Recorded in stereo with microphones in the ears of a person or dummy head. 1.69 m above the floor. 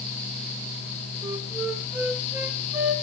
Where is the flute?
10° right (ahead or behind), 1.6 m.